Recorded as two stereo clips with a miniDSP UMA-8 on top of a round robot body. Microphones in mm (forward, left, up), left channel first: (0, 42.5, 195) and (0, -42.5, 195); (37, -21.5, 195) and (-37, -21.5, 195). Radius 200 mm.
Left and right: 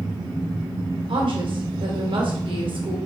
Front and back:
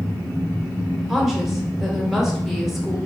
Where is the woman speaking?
90° right, 2.5 m.